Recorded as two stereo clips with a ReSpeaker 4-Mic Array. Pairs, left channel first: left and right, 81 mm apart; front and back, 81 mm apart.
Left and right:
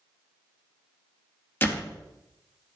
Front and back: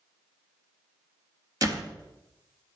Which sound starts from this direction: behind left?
A door slam, at 1.6 s.